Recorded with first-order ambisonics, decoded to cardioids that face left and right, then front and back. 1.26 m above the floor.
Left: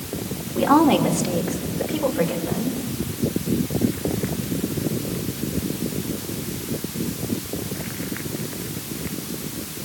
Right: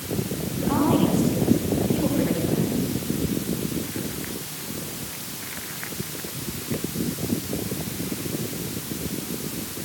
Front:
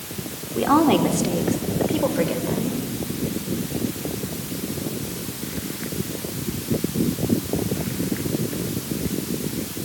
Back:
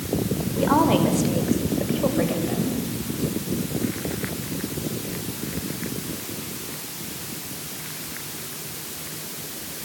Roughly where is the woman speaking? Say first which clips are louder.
Left 6 dB, front 2 dB; ahead left.